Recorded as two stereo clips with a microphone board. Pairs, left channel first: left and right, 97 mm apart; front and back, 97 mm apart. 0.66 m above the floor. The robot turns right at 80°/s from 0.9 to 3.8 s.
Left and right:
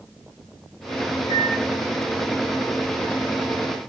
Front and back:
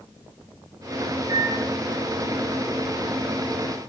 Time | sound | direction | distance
1.3 | a microwave | 115° left | 2.5 m